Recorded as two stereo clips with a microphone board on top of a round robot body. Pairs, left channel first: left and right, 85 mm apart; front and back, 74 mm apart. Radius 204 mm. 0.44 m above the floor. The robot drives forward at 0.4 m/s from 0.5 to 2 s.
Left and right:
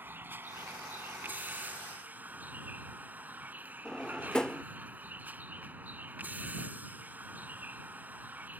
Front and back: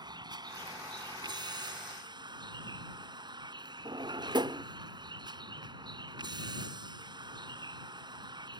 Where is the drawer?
170° left.